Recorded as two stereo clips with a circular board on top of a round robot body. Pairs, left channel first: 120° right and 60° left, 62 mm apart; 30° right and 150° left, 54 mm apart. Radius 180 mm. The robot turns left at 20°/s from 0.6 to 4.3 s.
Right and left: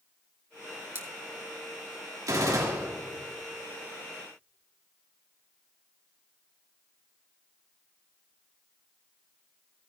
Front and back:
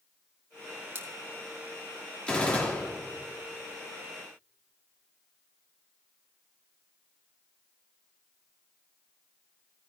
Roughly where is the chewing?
No chewing in this recording.